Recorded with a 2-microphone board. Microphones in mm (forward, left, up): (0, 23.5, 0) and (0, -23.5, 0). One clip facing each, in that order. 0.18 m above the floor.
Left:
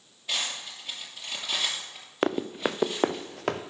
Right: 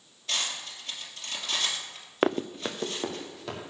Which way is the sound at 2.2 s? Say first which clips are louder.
Even; 5° right (ahead or behind).